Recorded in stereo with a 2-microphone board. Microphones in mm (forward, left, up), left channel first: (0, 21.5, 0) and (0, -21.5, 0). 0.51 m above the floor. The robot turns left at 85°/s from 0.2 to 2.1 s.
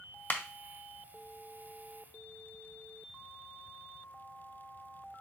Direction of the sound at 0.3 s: 35° left (ahead or behind).